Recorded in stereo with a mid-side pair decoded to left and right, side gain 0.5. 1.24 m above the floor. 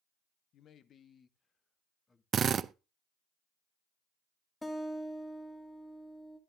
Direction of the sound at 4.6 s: 20° left.